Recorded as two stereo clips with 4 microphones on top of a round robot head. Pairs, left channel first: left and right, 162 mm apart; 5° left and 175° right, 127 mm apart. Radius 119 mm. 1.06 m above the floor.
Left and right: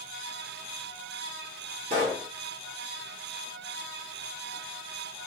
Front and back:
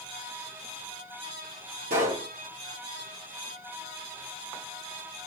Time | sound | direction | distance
1.9 | a pop | 140° right | 1.1 m